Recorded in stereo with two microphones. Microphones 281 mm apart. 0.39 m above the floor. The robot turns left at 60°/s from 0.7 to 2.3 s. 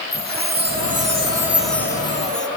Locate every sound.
0.1 s a chime: 125° right, 1.3 m; by 2.5 s 140° left, 1.3 m